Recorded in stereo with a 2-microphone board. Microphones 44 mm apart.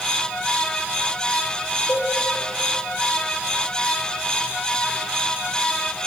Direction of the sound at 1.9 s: 50° left (ahead or behind).